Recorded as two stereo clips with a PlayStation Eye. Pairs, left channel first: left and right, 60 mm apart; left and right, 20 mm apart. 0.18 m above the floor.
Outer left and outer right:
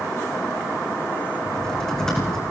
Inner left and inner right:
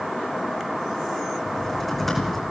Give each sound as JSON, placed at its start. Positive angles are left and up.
{"t": 1.4, "sound": "typing on a keyboard", "side_deg": 10, "distance_m": 4.5}